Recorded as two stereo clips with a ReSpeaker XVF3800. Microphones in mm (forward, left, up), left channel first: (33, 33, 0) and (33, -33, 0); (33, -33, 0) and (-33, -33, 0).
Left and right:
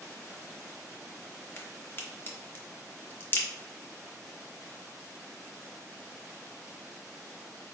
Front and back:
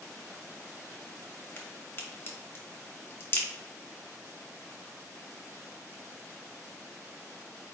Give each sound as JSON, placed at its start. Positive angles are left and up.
{"t": 1.6, "sound": "a crack", "azimuth_deg": 40, "distance_m": 0.9}